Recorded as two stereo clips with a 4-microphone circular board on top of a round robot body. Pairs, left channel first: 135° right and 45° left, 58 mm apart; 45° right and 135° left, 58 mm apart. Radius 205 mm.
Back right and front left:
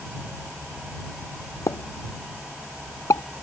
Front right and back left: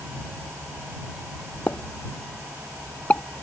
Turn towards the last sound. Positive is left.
turn(degrees=-110)